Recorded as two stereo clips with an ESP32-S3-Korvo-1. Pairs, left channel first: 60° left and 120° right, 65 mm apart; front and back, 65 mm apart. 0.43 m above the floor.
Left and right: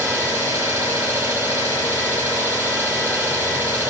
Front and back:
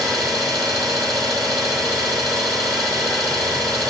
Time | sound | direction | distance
0.0 | an engine running | straight behind | 1.9 m